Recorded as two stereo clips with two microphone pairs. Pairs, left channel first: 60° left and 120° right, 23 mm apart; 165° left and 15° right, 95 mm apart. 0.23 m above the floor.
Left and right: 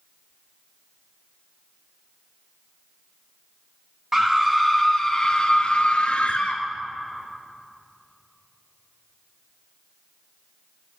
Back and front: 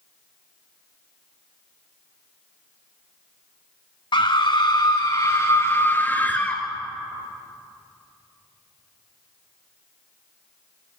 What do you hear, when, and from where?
4.1 s a scream: 170° left, 1.8 m; by 6.6 s 90° left, 2.5 m